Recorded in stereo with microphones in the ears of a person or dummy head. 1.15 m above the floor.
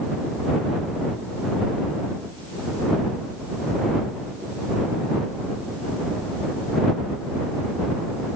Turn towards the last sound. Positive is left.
No sound to turn to.